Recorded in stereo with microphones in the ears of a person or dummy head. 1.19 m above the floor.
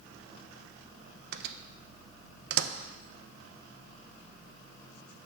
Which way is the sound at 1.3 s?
70° right (ahead or behind).